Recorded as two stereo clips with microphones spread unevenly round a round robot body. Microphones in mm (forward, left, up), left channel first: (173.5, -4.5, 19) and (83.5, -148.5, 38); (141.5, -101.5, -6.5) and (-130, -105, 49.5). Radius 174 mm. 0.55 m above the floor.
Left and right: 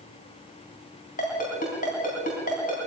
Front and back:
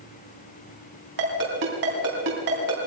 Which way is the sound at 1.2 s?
120° left.